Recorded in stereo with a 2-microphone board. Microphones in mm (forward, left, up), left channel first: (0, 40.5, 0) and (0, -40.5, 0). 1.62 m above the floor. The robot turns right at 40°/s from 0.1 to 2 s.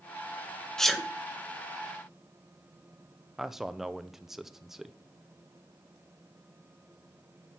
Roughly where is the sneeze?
Centre.